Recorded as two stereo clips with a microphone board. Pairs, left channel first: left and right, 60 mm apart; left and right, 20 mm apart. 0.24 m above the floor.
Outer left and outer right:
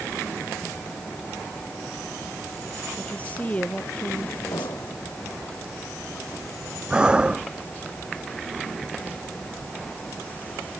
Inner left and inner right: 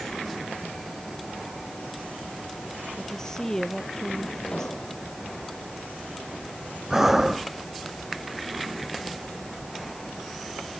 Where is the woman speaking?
25° left (ahead or behind).